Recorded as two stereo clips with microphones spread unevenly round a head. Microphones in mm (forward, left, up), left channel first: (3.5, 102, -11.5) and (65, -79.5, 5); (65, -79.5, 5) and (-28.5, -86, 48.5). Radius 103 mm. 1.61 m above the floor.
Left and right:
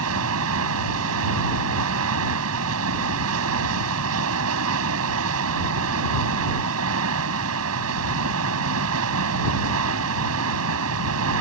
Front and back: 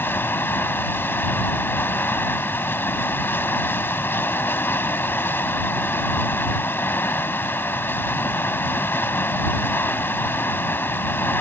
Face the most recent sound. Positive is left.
turn(degrees=-70)